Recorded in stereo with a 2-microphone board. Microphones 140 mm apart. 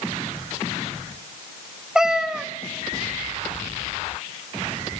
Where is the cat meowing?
5° right (ahead or behind), 1.0 m.